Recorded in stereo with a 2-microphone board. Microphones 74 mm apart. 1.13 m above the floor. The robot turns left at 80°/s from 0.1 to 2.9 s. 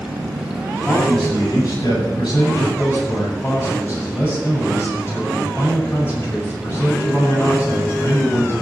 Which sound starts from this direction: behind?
A man speaking, at 0.9 s.